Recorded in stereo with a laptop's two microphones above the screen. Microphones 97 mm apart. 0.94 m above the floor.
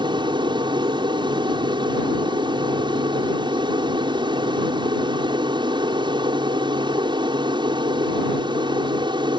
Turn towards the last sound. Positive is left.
turn(degrees=-55)  # may be behind; listen again after turning